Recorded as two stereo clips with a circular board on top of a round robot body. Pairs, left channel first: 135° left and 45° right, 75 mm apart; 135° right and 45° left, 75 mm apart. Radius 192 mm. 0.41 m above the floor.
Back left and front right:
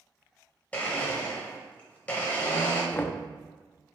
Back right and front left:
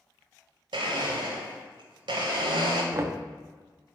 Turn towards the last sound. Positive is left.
turn(degrees=80)